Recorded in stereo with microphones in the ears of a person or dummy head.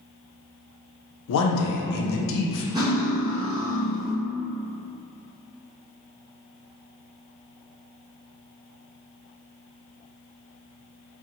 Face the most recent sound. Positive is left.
turn(degrees=-20)  # may be behind; listen again after turning